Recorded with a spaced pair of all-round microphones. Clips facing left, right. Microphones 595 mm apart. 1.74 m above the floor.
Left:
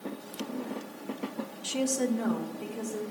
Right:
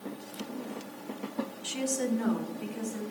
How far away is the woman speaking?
About 0.6 m.